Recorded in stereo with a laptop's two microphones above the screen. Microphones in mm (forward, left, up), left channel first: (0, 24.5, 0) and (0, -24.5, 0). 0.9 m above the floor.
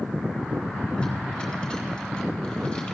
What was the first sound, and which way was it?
Tape being pulled, 15° left (ahead or behind).